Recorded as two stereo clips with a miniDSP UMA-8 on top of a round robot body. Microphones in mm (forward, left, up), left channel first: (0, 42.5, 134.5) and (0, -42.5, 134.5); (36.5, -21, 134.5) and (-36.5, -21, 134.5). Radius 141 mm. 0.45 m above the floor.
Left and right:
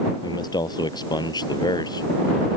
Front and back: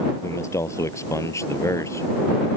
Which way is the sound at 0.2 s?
50° left.